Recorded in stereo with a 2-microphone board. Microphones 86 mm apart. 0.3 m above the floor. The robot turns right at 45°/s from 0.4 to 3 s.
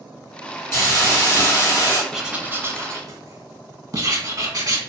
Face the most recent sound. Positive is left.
turn(degrees=-135)